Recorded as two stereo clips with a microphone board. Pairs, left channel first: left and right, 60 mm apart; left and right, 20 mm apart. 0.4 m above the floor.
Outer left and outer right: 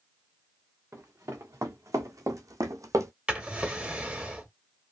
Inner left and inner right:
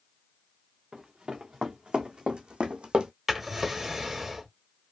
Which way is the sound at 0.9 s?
50° right (ahead or behind).